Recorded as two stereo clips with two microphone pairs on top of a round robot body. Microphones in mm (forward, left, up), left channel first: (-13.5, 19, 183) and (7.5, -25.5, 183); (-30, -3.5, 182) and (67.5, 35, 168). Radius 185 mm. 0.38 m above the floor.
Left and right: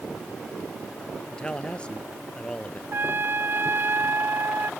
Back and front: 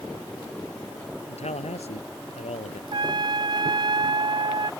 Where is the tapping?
I don't hear tapping.